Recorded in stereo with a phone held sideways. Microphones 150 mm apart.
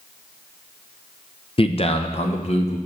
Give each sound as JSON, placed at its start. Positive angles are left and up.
{"t": 1.6, "sound": "a man speaking", "side_deg": 40, "distance_m": 0.6}